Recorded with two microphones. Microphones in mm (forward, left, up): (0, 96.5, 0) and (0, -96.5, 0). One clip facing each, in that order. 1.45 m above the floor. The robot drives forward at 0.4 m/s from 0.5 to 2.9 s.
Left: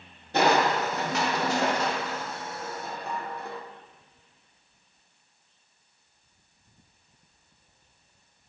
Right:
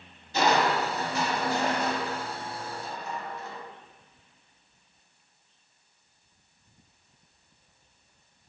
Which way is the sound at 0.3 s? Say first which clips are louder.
Left 2 dB; 60° left (ahead or behind).